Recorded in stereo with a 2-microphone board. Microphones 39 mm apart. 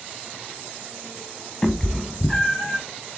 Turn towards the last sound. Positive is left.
turn(degrees=15)  # may be behind; listen again after turning